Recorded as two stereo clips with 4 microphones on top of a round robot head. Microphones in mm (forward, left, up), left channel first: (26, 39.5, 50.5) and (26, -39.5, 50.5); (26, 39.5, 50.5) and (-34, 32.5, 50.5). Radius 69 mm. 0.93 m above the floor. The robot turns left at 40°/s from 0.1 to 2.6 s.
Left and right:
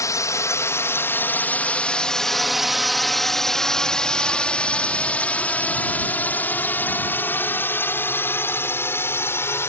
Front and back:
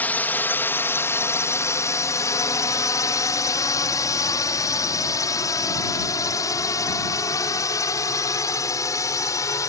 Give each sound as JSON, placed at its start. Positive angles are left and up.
{"t": 0.0, "sound": "a drone", "azimuth_deg": 60}